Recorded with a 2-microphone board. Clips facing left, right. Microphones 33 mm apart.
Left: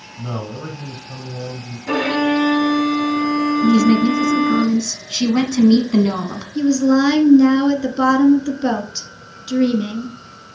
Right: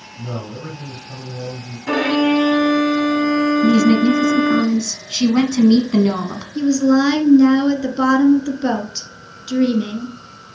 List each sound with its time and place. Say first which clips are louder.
0.2 s a man speaking: left 1 dB; 30° left (ahead or behind), 3.5 m
1.9 s a violin: right 2 dB; 70° right (ahead or behind), 4 m
3.6 s a woman speaking: left 1 dB; 15° right (ahead or behind), 1.1 m
6.5 s a woman speaking: even; 5° right (ahead or behind), 1.5 m